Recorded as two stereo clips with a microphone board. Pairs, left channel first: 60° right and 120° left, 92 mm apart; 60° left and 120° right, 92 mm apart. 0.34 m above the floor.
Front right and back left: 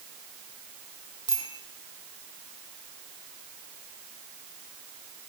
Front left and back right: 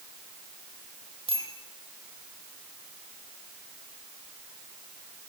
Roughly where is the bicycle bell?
Right.